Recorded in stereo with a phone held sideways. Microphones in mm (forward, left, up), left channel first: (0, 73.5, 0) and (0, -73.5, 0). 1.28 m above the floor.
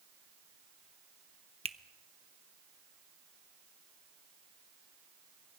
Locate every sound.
1.6 s a finger snap: 40° right (ahead or behind), 0.8 m